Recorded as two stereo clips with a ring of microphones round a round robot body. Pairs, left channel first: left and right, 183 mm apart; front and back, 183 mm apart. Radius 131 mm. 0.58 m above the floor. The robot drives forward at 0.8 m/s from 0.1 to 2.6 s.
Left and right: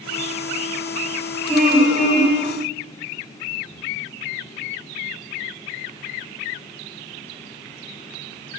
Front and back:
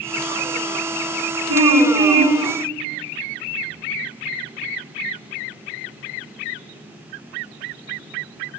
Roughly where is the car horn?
Behind.